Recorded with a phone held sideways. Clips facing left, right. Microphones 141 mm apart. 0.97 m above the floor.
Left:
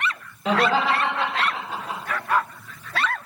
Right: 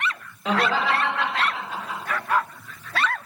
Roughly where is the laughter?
Centre.